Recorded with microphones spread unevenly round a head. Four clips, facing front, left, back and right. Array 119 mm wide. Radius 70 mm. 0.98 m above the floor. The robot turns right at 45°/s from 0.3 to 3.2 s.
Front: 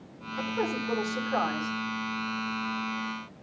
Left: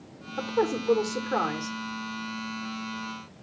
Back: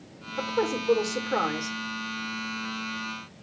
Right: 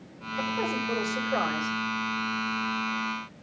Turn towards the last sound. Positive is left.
turn(degrees=-150)